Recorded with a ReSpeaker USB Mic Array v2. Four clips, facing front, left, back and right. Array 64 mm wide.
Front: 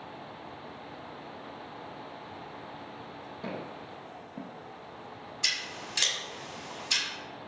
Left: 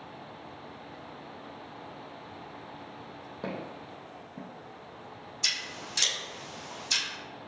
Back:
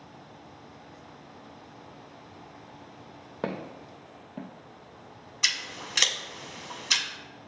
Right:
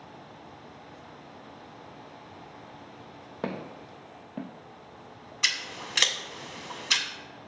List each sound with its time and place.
3.4 s footsteps: 150° right, 0.9 m; by 5.3 s 40° right, 0.8 m
5.4 s scissors: 120° right, 0.7 m